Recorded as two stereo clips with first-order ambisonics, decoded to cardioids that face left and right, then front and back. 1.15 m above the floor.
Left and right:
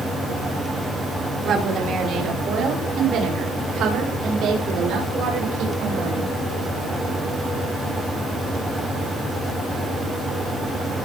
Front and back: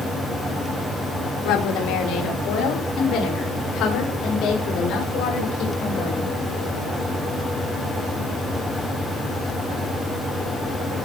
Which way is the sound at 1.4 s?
30° right.